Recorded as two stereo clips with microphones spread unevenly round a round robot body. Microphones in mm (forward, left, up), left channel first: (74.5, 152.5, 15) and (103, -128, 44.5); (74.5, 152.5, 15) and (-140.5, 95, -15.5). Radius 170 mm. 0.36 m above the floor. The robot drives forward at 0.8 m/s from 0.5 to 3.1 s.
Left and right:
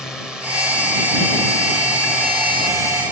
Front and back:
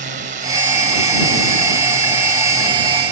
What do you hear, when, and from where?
0.0 s a drone: straight behind; by 3.1 s 170° right